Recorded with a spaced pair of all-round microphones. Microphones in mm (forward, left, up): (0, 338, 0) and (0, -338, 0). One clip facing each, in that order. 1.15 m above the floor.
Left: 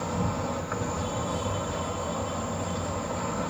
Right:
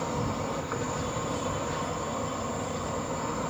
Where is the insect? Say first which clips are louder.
Left 1 dB; 25° left (ahead or behind), 1.1 m.